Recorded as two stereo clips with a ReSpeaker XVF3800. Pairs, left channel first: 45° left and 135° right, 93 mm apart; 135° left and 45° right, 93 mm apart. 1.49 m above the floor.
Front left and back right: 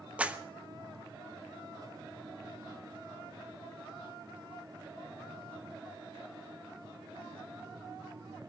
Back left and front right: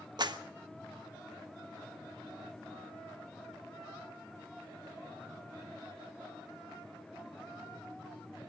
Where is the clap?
60° right, 1.0 m.